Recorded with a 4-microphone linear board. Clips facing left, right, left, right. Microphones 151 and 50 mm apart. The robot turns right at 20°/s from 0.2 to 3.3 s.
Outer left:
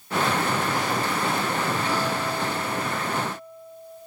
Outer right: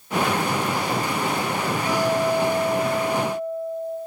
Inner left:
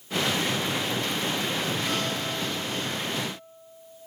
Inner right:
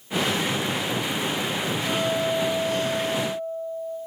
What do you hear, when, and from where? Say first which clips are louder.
1.9 s a guitar: outer right 5 dB, inner right 5 dB; 10° right (ahead or behind), 2 m; by 4.0 s 35° right (ahead or behind), 2 m